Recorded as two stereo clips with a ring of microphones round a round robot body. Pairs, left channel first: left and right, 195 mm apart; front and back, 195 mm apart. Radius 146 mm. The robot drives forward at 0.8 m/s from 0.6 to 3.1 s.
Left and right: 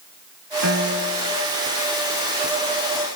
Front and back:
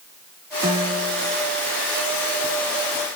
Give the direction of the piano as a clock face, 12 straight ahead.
3 o'clock.